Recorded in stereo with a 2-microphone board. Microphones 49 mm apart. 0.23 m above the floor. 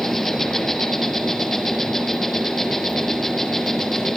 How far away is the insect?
About 1.3 m.